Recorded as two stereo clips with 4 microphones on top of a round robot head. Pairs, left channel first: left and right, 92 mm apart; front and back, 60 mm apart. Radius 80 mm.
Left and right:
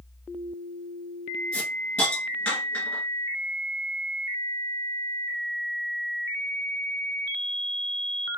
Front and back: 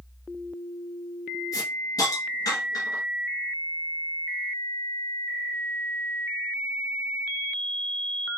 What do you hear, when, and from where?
1.5 s a hiss: 20° left, 1.9 m